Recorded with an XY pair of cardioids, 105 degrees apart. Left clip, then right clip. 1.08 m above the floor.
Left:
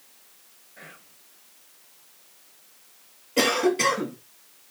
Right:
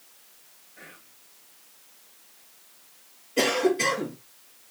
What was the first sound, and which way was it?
Whispering, 35° left.